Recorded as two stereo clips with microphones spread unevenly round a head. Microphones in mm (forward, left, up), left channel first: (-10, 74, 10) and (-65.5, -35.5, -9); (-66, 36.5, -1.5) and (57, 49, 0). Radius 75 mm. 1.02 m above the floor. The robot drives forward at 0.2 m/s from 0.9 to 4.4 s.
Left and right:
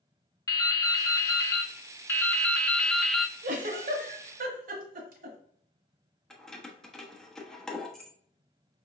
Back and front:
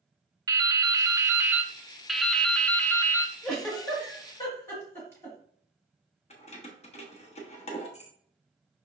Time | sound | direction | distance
0.5 | dripping | 45° left | 0.6 m
3.4 | a giggle | 90° right | 1.1 m
6.3 | keys jangling | 150° left | 1.0 m